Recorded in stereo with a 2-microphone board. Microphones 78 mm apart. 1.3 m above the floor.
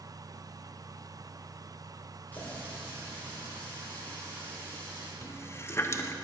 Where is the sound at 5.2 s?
30° left (ahead or behind), 0.5 m.